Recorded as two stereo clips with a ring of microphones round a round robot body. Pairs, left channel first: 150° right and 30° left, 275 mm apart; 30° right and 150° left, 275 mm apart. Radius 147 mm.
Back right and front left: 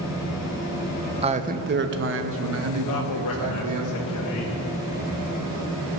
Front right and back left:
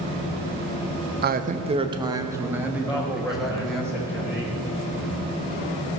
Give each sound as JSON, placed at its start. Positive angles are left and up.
{"t": 1.2, "sound": "a man speaking", "azimuth_deg": 100, "distance_m": 0.7}
{"t": 2.9, "sound": "a man speaking", "azimuth_deg": -115, "distance_m": 1.2}